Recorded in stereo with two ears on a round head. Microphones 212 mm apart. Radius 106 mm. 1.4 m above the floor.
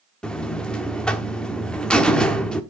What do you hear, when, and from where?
0.2 s a buzzer: 5° left (ahead or behind), 1.1 m